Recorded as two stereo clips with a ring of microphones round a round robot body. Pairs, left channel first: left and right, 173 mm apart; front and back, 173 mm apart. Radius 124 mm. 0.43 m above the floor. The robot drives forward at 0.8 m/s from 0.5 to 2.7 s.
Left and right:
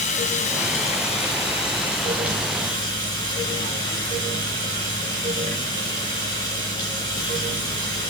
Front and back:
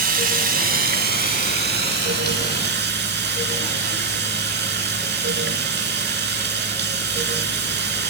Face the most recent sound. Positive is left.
turn(degrees=165)